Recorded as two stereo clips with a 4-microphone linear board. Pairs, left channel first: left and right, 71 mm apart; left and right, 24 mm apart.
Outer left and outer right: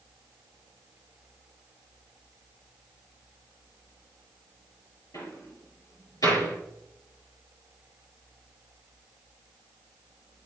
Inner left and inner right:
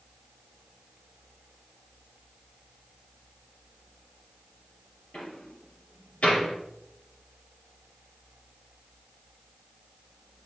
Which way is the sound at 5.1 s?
65° left (ahead or behind).